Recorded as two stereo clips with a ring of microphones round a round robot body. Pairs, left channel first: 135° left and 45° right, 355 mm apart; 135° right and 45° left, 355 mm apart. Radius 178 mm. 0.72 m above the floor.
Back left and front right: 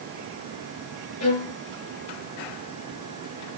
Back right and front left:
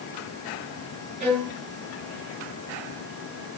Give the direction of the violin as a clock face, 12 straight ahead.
9 o'clock.